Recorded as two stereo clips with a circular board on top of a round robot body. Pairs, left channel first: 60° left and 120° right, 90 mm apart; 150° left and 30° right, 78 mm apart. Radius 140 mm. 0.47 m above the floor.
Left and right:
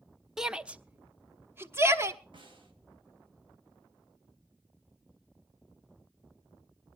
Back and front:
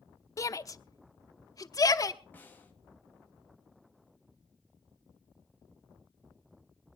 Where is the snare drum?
145° right, 3 m.